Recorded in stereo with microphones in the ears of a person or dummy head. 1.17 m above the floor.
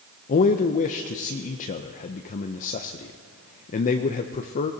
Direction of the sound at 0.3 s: 45° left (ahead or behind).